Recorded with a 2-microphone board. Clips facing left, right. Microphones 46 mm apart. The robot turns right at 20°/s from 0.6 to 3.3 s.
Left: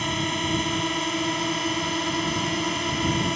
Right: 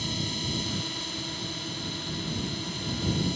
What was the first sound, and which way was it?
A drone, 60° left.